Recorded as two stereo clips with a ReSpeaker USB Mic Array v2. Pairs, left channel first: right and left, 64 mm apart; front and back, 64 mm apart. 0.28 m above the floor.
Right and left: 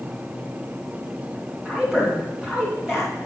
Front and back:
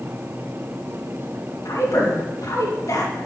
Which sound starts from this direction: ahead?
A woman speaking, at 1.6 s.